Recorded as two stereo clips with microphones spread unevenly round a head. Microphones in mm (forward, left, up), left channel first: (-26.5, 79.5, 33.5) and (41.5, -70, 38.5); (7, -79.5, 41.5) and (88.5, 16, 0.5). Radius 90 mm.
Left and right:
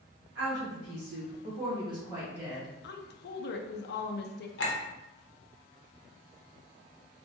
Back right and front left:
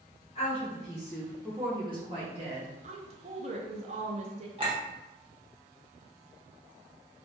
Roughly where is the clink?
Behind left.